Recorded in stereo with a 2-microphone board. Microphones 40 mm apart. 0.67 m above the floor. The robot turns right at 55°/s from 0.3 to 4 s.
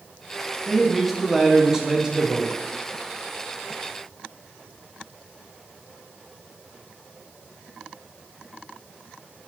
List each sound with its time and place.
0.7 s a man speaking: 5° left (ahead or behind), 0.5 m; by 2.5 s 20° right (ahead or behind), 0.5 m